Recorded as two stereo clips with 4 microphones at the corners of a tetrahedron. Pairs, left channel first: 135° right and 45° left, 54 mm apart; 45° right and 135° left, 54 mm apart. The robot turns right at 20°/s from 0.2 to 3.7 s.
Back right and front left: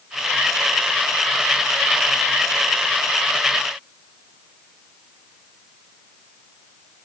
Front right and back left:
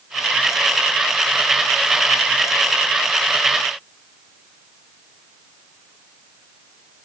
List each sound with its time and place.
Only background noise.